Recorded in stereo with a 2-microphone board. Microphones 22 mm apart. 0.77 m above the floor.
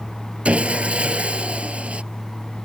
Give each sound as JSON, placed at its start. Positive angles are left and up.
{"t": 0.5, "sound": "sawing", "side_deg": -70}